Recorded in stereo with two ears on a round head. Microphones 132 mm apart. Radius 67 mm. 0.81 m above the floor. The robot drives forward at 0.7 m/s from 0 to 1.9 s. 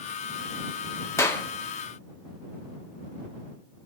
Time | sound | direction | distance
1.2 | a clap | 20° left (ahead or behind) | 1.2 m